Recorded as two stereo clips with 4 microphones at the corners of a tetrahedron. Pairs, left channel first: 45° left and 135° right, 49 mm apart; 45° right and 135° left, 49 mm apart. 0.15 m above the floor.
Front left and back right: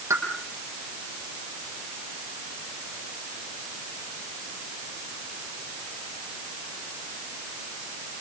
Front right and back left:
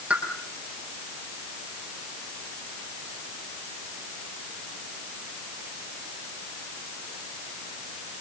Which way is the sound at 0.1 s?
160° right.